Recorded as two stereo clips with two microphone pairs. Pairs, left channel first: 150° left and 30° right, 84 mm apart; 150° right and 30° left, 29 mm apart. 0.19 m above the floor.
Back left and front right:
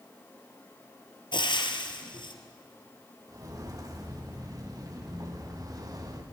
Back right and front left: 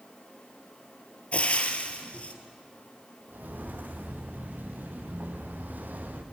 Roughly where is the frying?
Behind.